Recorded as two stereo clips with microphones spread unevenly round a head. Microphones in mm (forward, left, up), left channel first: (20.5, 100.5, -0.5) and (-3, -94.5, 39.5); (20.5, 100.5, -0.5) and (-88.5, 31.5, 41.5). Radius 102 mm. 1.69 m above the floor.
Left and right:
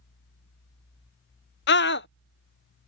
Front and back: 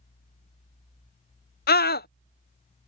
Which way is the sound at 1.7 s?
40° left.